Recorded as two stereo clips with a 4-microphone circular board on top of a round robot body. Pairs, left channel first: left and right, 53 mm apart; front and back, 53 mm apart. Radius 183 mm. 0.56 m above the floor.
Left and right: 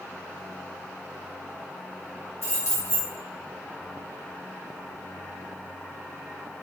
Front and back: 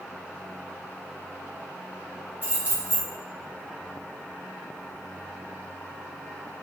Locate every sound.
2.4 s keys jangling: 120° left, 1.7 m